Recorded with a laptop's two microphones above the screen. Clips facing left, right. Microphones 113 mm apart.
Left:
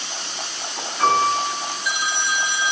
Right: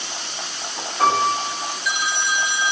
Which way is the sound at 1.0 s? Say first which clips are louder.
Even; 45° right (ahead or behind).